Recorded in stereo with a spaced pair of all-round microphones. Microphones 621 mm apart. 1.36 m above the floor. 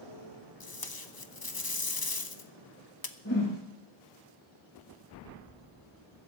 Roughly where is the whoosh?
Left.